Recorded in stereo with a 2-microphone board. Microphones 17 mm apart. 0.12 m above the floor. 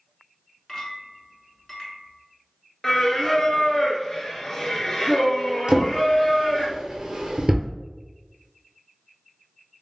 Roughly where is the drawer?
Right.